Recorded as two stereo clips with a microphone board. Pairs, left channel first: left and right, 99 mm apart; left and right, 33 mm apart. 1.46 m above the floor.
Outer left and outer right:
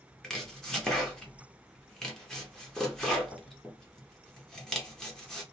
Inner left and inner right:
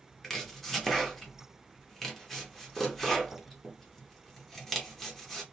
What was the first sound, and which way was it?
Chopping, 5° left (ahead or behind).